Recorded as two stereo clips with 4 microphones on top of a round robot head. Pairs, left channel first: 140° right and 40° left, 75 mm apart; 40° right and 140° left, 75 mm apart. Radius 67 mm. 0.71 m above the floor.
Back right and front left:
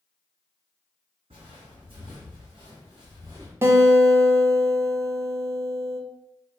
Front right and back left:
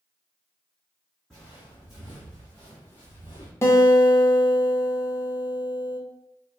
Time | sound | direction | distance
1.3 | footsteps | 50° left | 1.6 m
3.6 | a guitar | straight ahead | 0.6 m